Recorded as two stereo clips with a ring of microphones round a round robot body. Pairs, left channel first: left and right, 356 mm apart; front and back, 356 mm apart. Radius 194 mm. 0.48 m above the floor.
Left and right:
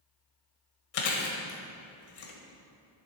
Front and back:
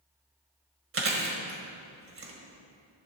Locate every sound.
0.9 s chewing: 125° left, 1.7 m